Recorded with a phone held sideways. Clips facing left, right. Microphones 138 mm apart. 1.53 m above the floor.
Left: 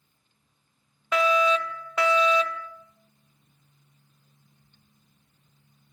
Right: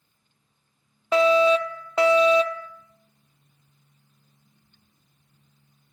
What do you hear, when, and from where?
1.1 s a fire alarm: 30° right (ahead or behind), 1.0 m